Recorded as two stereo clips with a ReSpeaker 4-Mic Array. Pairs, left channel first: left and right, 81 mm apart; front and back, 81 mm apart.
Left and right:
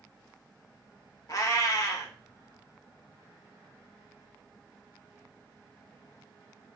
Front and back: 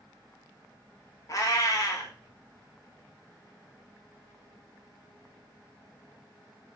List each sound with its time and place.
1.3 s a cat meowing: 45° left, 0.6 m